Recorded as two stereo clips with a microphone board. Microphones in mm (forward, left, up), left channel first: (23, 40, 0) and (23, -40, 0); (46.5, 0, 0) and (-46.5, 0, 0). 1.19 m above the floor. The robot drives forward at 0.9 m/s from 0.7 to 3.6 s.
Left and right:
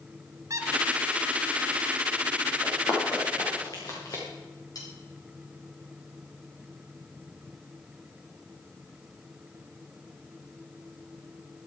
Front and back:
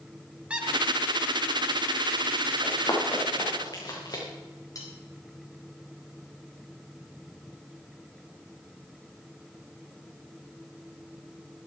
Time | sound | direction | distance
0.5 | a squeak | 105° right | 1.6 m
2.6 | running footsteps | 50° left | 5.5 m
4.8 | cutlery clinking | 50° left | 4 m